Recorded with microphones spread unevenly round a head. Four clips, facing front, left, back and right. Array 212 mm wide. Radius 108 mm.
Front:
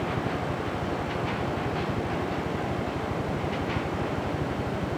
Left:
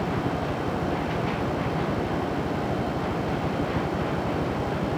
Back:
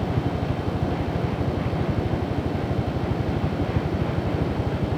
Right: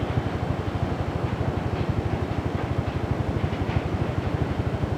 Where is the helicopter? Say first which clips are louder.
Left 2 dB, back 3 dB; 130° right; by 5.0 s 125° right.